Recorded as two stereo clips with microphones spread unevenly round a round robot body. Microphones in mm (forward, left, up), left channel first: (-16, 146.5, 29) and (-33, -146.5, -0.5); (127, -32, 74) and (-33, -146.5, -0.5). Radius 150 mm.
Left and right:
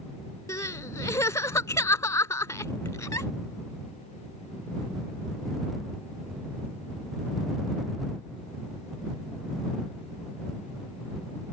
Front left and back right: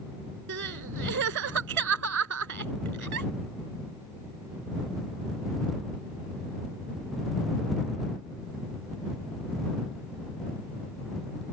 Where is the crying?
165° left.